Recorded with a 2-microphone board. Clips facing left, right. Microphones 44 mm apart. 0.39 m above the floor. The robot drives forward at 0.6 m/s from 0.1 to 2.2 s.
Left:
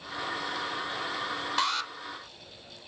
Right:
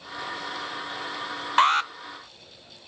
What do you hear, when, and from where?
1.6 s an alarm: 40° right (ahead or behind), 0.6 m